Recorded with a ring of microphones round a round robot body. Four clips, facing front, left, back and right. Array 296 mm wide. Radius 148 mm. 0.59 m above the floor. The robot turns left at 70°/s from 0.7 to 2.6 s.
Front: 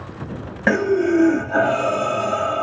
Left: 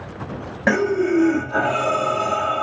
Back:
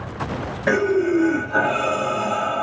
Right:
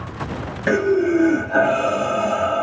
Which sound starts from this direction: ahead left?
Breathing, at 0.7 s.